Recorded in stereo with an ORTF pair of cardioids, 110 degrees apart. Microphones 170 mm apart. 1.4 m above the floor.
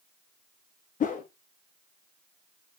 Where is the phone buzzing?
No phone buzzing in this recording.